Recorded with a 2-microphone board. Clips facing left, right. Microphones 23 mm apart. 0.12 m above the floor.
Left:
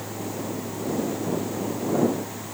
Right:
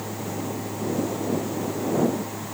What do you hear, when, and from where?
Only background noise.